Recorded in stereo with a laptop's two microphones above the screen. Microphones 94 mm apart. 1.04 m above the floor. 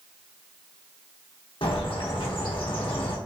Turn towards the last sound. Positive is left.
turn(degrees=65)  # may be behind; listen again after turning